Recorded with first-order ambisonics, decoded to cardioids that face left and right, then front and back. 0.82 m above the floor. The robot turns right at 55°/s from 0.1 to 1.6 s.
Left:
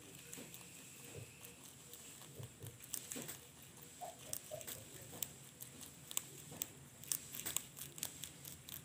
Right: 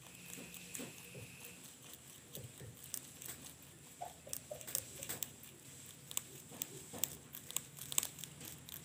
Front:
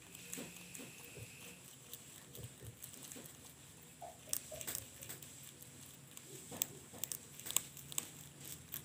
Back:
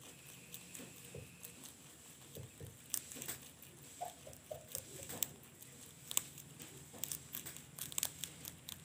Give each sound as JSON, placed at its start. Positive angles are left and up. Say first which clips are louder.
{"t": 1.1, "sound": "a whoosh", "louder": "right 2 dB, front 1 dB", "azimuth_deg": 180, "distance_m": 7.0}